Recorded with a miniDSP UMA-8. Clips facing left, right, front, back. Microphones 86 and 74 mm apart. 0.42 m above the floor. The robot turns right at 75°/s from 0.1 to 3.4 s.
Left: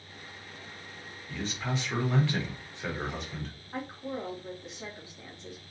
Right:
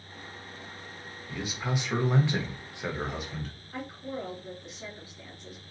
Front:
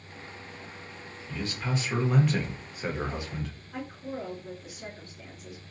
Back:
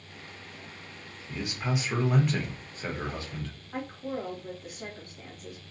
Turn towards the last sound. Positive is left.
turn(degrees=150)